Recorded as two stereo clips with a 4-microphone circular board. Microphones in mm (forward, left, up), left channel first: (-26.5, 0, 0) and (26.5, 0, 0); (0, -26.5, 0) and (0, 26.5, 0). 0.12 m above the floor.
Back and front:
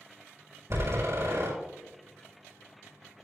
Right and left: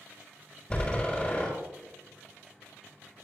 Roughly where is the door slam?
Ahead right.